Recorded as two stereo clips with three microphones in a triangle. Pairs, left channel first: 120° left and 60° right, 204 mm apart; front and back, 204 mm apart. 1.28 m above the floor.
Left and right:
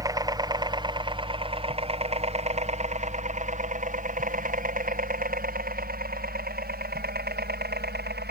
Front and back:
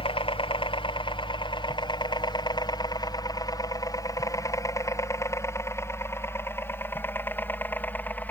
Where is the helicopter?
10° right; by 8.3 s 80° right.